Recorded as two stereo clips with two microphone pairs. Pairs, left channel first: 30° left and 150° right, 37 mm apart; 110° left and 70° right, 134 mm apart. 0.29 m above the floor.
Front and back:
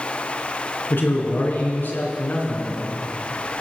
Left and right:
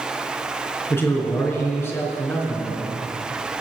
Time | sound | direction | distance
0.9 | a man speaking | 40° left | 3.5 m